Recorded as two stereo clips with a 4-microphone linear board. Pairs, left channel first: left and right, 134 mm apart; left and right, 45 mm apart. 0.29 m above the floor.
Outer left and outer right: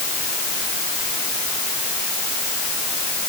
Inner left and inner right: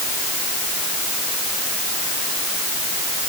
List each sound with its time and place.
Only background noise.